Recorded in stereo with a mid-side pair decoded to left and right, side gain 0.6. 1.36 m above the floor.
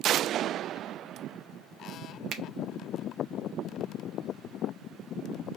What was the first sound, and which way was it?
A finger snap, 55° right.